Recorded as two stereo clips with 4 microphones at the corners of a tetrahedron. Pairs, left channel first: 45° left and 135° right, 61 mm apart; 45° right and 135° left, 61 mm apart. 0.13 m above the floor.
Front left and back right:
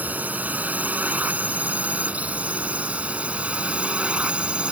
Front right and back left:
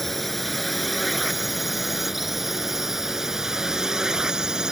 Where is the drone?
130° right; by 4.7 s 165° right.